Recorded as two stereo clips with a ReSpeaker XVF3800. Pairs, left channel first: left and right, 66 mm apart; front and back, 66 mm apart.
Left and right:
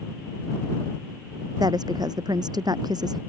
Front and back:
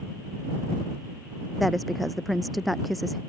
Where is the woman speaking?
90° right.